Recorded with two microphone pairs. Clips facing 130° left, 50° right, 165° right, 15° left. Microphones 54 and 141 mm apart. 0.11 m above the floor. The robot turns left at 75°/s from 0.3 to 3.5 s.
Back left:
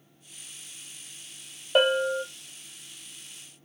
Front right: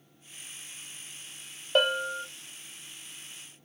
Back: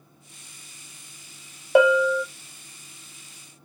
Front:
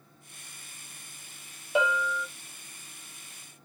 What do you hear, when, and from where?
1.8 s a bell: 145° right, 0.5 m; by 2.2 s straight behind, 0.5 m